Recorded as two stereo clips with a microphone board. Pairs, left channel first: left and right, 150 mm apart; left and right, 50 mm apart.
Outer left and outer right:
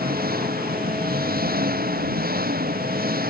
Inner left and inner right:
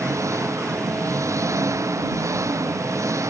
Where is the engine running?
85° right.